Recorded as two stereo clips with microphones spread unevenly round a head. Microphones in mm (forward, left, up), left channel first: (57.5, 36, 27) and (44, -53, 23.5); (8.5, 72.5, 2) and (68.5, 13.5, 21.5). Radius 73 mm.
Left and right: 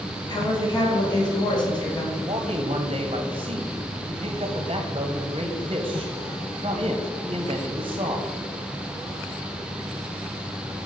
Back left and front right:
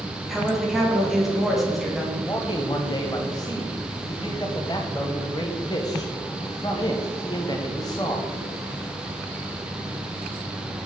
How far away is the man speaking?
About 0.7 m.